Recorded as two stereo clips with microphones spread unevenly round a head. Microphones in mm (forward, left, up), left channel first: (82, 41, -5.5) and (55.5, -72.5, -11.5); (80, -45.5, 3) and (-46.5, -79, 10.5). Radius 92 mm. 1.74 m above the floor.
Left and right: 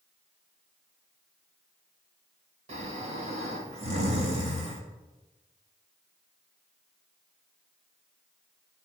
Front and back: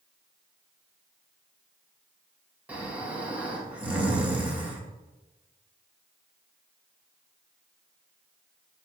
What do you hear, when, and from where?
2.7 s snoring: 90° right, 1.6 m